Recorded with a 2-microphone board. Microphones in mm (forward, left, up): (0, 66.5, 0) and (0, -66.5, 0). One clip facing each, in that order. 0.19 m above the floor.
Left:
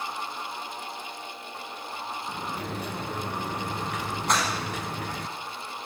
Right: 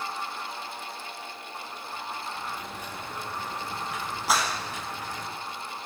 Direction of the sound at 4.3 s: 5° right (ahead or behind).